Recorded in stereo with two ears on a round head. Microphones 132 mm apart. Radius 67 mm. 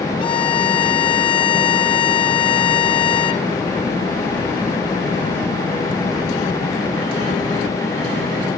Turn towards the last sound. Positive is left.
turn(degrees=35)  # may be behind; listen again after turning